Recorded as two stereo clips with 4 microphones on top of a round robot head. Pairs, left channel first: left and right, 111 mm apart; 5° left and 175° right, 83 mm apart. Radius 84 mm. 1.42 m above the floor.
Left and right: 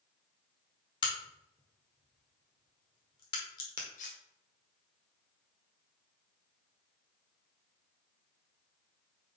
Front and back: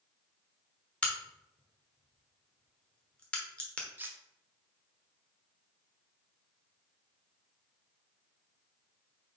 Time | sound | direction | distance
1.0 | a crack | 75° left | 1.2 m
4.0 | cutlery clinking | 125° left | 0.8 m